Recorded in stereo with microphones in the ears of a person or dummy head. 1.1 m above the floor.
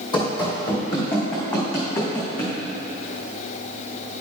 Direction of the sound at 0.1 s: 25° left (ahead or behind).